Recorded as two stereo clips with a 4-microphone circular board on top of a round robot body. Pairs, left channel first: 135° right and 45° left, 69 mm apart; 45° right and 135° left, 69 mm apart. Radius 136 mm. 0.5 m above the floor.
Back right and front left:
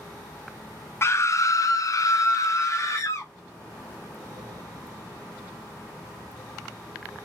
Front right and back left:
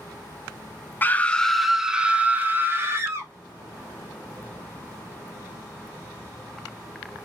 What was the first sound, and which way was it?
A scream, 100° right.